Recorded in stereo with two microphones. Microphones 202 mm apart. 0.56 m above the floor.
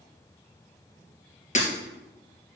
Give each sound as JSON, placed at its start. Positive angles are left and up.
{"t": 1.6, "sound": "breaking glass", "side_deg": 35, "distance_m": 3.0}